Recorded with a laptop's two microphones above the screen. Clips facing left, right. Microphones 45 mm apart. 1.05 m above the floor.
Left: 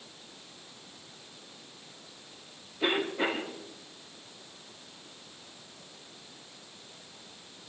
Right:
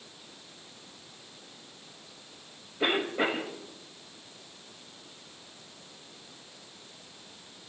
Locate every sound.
2.8 s a cough: 45° right (ahead or behind), 6.5 m